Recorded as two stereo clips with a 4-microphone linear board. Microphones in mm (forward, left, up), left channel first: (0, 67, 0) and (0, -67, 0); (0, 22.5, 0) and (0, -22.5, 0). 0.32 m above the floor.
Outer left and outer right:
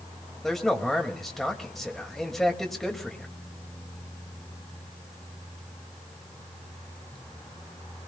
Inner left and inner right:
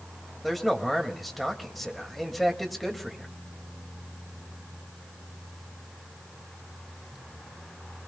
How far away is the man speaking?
About 1.7 m.